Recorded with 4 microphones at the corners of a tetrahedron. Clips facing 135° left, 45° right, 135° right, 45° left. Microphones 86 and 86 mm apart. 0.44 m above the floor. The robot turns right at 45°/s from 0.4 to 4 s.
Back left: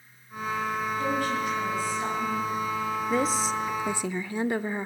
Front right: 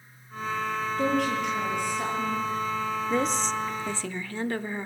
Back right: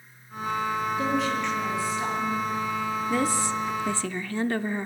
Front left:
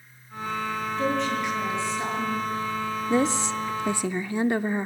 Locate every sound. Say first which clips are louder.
1.0 s a woman speaking: front right 4 dB, front left 3 dB; 60° right, 9.5 m; by 2.5 s 10° left, 9.5 m
3.1 s a woman speaking: back left 1 dB, front left 4 dB; 45° left, 0.7 m; by 4.9 s 85° left, 0.7 m